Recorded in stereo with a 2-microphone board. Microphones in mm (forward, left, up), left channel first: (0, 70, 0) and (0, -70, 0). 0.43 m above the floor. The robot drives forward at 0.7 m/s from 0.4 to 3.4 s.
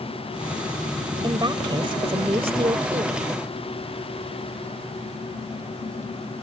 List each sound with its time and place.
1.2 s a woman speaking: 35° right (ahead or behind); by 3.2 s 45° right (ahead or behind)